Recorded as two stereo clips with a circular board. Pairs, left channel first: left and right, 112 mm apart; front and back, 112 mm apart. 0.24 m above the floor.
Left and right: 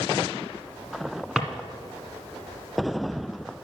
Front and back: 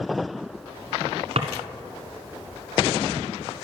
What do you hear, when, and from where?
1.4 s a drawer: 175° right, 1.5 m